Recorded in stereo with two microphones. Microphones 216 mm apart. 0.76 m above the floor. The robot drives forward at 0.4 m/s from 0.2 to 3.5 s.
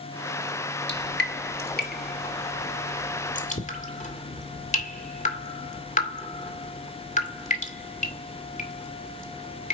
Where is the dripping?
55° left (ahead or behind), 1.6 m; by 9.7 s 35° left (ahead or behind), 2.5 m.